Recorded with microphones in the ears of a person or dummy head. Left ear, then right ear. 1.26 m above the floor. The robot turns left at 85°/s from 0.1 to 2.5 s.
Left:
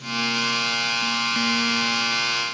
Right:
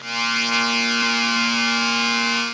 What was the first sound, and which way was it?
Only background noise.